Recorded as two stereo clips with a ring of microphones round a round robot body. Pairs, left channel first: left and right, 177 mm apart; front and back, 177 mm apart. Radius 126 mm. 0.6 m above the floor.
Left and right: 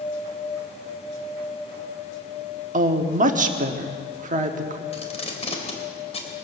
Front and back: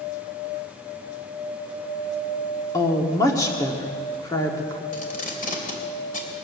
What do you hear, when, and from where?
2.7 s a woman speaking: 70° right, 1.3 m
4.9 s tape being pulled: 40° left, 3 m